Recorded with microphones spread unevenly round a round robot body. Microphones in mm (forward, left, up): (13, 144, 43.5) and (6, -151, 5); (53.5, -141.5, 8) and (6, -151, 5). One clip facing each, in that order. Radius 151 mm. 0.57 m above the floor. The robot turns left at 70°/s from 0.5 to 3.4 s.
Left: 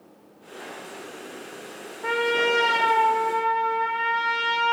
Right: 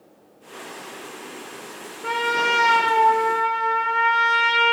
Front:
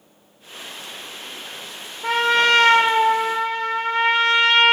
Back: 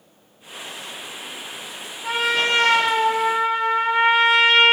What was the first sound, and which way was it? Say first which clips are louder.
A trumpet: left 4 dB, front 4 dB; 5° left.